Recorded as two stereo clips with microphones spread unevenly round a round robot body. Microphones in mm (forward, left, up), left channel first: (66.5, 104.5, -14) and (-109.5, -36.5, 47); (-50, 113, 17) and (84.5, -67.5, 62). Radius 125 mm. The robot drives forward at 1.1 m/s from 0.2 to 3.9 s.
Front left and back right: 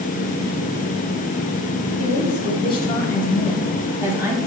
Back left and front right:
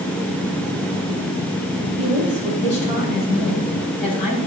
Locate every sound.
2.0 s a woman speaking: 55° left, 2.0 m; by 4.4 s 130° left, 2 m